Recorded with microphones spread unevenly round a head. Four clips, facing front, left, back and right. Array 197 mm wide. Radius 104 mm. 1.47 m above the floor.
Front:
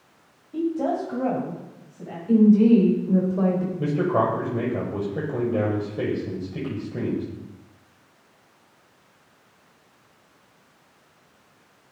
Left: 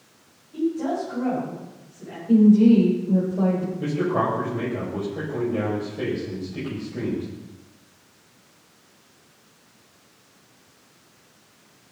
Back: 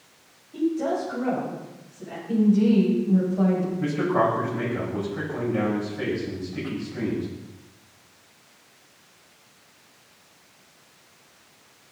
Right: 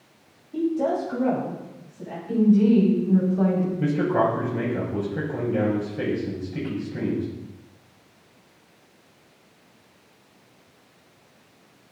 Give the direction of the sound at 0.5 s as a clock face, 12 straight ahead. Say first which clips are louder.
Right 1 dB, even; 1 o'clock.